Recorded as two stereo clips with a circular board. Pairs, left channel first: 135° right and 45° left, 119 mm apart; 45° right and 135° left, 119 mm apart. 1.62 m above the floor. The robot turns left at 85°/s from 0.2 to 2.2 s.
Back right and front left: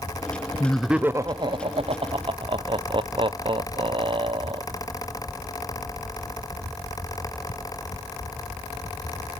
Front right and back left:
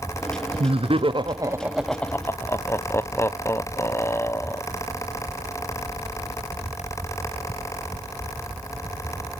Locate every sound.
0.6 s laughter: 155° left, 0.6 m; by 4.6 s 15° left, 0.6 m